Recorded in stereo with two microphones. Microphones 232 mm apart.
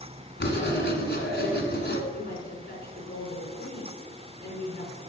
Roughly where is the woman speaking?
Left.